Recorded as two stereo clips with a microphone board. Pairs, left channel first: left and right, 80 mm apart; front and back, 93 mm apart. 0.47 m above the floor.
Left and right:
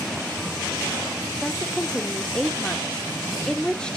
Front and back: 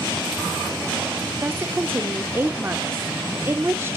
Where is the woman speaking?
155° left, 0.8 m.